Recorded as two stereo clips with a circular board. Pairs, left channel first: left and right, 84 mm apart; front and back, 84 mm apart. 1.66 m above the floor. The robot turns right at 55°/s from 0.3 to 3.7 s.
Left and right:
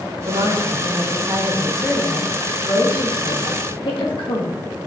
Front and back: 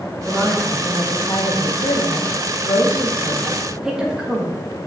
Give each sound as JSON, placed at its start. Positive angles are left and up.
{"t": 0.3, "sound": "a woman speaking", "azimuth_deg": -85, "distance_m": 2.0}